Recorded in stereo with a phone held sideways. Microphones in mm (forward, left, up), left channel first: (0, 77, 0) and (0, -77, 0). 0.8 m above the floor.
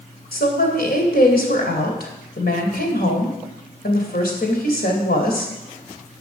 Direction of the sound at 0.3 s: 85° left.